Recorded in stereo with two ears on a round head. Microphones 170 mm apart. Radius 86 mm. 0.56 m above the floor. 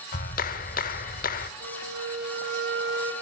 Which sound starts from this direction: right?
A flute, at 1.6 s.